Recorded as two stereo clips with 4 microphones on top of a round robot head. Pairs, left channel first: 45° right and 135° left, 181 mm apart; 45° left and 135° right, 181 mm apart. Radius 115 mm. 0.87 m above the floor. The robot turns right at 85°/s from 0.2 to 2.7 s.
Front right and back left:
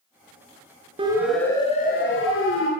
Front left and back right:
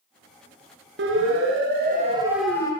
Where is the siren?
160° right, 10 m; by 2.7 s 25° right, 9.5 m.